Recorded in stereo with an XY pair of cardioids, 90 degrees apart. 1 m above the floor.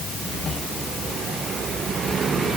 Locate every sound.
Only background noise.